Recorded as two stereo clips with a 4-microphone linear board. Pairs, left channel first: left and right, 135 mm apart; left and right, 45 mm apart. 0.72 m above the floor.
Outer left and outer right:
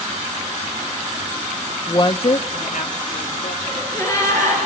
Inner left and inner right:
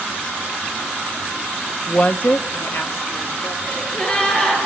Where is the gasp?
20° left (ahead or behind), 4.5 m.